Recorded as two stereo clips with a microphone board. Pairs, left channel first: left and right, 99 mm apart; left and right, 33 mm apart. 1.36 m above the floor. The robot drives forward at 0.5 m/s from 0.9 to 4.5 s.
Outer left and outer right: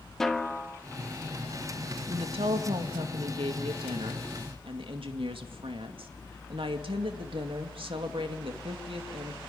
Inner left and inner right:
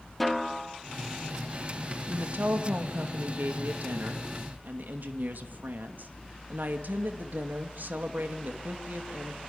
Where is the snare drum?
5° left (ahead or behind), 1.3 m.